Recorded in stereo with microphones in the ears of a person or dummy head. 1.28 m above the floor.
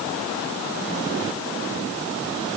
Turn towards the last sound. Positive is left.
No sound to turn to.